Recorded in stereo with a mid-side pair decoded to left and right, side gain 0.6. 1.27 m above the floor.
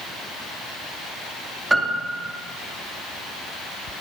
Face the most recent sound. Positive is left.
turn(degrees=-15)